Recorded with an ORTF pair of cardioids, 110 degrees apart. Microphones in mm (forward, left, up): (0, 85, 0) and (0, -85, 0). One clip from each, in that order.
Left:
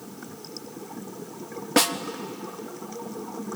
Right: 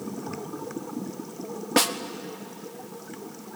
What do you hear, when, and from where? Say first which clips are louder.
1.8 s a snare drum: left 1 dB; straight ahead, 1.0 m